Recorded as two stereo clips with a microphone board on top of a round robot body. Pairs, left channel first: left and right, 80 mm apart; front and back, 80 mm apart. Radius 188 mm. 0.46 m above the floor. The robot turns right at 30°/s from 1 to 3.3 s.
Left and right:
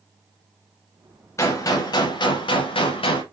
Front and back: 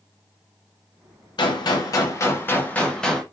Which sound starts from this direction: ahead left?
A gunshot, at 1.4 s.